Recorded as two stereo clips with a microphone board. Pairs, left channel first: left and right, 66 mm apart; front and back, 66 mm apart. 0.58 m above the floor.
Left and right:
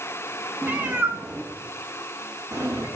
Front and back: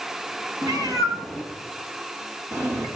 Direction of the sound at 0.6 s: 160° right.